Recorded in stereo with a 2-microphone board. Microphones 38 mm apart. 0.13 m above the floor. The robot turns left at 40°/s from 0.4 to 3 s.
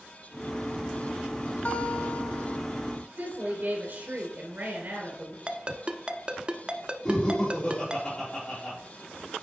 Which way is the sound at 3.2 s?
50° right (ahead or behind).